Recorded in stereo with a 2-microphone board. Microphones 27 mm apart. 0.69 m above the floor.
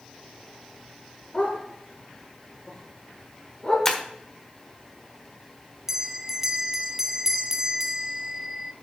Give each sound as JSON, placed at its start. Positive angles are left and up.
{"t": 1.3, "sound": "a dog barking", "side_deg": 50, "distance_m": 5.0}
{"t": 3.9, "sound": "breaking glass", "side_deg": 15, "distance_m": 1.2}
{"t": 5.9, "sound": "a bell", "side_deg": -15, "distance_m": 0.8}